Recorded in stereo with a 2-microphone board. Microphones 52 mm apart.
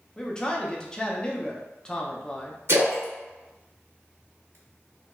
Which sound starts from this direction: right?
A splash, at 2.7 s.